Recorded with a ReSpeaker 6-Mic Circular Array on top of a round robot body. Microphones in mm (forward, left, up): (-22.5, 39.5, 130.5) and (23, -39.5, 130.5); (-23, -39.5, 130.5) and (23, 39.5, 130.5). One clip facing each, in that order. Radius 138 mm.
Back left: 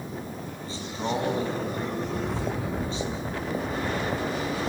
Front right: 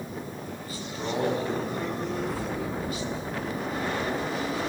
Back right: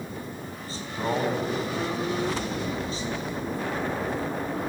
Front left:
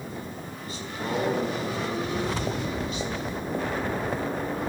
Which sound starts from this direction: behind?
A man speaking, at 0.6 s.